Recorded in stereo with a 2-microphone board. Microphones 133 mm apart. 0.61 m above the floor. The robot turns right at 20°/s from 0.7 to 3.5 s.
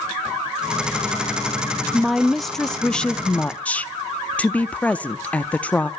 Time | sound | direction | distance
1.9 | a woman speaking | centre (ahead or behind) | 0.5 m